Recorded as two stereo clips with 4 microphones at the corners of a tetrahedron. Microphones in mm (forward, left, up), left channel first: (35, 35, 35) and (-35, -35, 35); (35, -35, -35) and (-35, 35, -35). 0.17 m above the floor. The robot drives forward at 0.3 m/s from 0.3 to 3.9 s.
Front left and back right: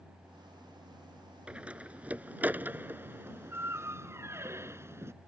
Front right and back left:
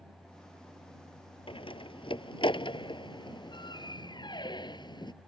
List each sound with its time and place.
1.5 s a door slam: 60° right; by 5.1 s 75° right